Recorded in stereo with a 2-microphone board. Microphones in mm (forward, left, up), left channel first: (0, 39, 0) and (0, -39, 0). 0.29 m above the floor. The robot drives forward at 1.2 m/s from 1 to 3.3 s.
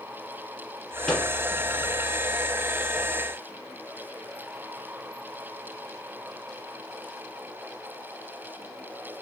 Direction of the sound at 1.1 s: 15° left (ahead or behind).